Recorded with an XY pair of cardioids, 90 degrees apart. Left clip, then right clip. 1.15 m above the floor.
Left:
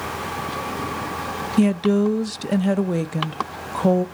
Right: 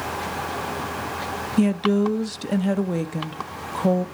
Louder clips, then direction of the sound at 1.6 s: Left 2 dB; 20° left.